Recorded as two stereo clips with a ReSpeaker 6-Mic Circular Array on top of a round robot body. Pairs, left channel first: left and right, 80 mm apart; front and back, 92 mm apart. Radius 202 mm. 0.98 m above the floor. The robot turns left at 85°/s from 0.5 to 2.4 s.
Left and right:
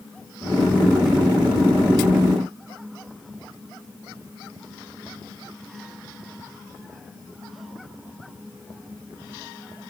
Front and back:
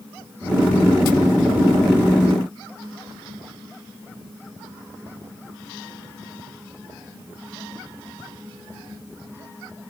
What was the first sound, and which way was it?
Only background noise.